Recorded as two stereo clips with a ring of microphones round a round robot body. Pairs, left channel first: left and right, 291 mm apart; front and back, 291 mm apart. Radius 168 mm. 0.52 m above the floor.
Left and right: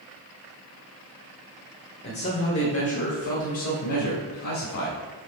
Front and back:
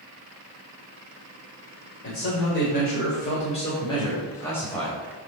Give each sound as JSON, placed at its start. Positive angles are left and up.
{"t": 2.0, "sound": "a man speaking", "azimuth_deg": 40, "distance_m": 2.5}